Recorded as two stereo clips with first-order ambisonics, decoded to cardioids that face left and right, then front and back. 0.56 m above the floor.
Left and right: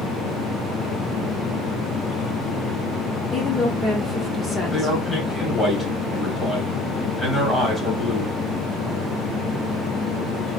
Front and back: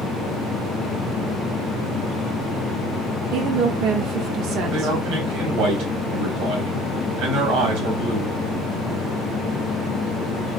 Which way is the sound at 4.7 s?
165° left.